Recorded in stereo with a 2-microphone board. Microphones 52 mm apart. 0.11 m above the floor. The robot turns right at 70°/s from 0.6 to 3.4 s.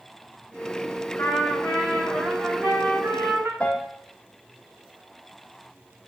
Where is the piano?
25° left (ahead or behind), 2.0 m.